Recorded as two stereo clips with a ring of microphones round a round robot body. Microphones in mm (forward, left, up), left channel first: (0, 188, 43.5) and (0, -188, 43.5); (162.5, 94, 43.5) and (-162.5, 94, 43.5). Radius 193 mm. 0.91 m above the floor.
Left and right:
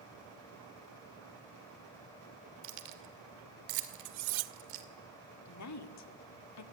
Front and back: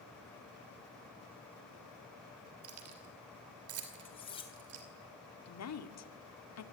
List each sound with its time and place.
2.6 s keys jangling: 125° right, 2.5 m
4.0 s cutlery clinking: 75° right, 1.1 m
5.5 s a woman speaking: 40° left, 2 m